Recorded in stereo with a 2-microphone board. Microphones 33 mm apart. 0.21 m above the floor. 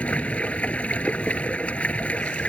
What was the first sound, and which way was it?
Running water, 40° left (ahead or behind).